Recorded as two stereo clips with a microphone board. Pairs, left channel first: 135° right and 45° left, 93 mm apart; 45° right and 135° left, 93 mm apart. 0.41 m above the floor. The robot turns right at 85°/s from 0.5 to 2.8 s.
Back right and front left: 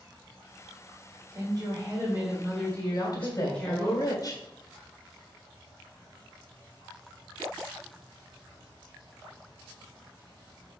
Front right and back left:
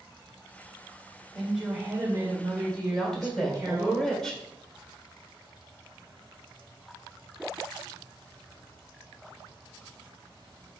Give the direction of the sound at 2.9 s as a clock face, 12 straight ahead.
4 o'clock.